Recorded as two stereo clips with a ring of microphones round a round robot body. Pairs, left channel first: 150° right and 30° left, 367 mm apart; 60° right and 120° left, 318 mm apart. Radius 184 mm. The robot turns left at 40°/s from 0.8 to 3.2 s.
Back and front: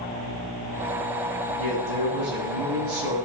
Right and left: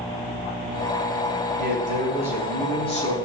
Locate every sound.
1.6 s a man speaking: 65° left, 6 m; by 3.1 s straight ahead, 6 m